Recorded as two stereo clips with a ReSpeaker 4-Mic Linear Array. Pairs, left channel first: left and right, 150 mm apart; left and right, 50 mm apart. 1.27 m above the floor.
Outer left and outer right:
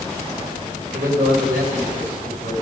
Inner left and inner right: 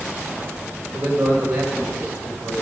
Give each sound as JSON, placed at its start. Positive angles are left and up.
{"t": 0.9, "sound": "a man speaking", "side_deg": -85, "distance_m": 5.5}